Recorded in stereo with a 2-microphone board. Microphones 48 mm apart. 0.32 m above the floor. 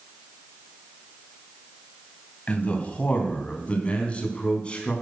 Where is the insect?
I don't hear an insect.